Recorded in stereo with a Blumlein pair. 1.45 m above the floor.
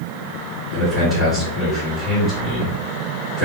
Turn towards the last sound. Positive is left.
turn(degrees=5)